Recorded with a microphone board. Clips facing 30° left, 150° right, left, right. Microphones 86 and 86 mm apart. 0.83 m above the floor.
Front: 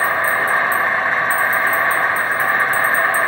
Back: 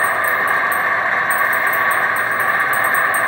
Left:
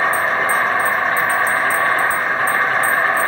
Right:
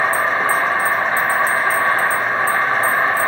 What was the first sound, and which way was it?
An insect, 105° left.